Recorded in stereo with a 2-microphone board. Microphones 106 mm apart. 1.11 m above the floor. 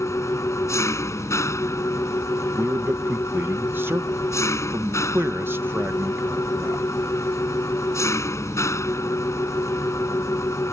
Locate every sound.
0.0 s an engine running: 25° left (ahead or behind)
2.6 s a man speaking: 20° right (ahead or behind)